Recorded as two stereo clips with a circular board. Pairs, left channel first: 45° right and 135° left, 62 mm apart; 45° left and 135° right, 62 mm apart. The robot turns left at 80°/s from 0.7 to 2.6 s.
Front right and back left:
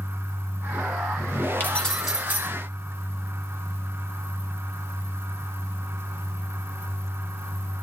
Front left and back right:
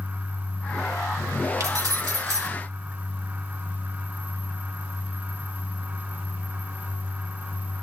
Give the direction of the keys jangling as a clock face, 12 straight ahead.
3 o'clock.